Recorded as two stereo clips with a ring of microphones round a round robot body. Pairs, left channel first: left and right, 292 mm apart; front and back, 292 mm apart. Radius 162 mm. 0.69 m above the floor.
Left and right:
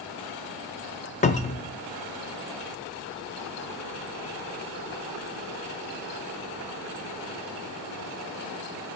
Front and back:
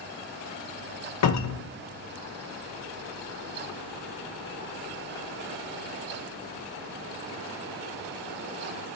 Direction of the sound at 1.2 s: 25° left.